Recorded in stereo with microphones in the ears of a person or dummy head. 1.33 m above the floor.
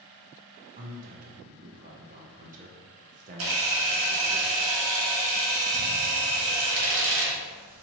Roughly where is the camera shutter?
Right.